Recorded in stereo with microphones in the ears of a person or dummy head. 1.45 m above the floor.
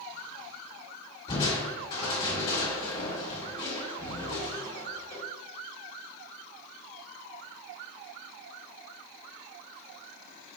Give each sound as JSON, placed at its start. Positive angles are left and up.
{"t": 1.3, "sound": "crushing", "side_deg": 30, "distance_m": 2.0}